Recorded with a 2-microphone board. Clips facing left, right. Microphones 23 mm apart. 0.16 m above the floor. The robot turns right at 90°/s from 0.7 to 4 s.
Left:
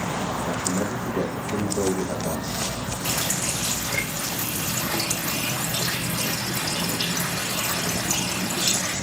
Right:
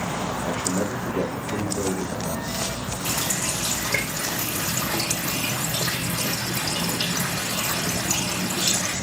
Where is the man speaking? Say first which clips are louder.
Even; 70° right, 4.5 m; by 2.9 s 130° left, 4.5 m.